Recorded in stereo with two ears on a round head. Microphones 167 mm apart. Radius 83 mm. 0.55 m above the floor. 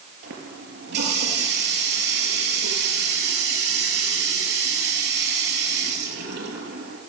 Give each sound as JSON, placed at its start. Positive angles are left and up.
{"t": 0.2, "sound": "a running tap", "side_deg": -60, "distance_m": 6.5}